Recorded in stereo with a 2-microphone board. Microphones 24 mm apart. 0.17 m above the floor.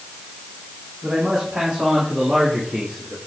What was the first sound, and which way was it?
A man speaking, 40° right (ahead or behind).